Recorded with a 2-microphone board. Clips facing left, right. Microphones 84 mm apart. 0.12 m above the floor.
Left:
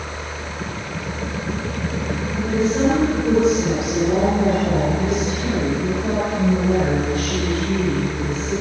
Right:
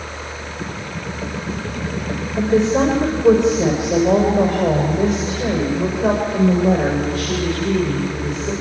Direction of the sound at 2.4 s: 80° right.